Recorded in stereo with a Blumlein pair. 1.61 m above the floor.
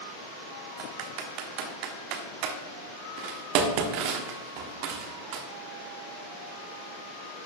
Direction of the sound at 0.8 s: 45° right.